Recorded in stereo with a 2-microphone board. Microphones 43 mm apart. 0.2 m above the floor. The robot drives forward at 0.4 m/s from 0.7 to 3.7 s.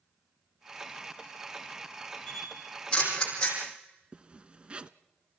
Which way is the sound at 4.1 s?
25° right (ahead or behind).